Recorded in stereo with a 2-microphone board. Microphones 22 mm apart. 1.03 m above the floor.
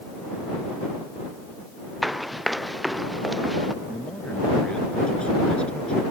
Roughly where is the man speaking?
Left.